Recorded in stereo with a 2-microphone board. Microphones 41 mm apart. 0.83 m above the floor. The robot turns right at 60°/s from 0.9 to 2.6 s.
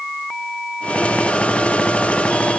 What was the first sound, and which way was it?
Only background noise.